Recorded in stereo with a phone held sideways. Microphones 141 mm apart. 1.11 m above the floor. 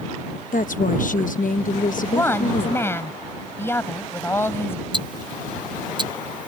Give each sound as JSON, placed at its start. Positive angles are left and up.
{"t": 0.5, "sound": "a woman speaking", "side_deg": 70}
{"t": 2.0, "sound": "a woman speaking", "side_deg": 15}
{"t": 4.9, "sound": "ticking", "side_deg": -35}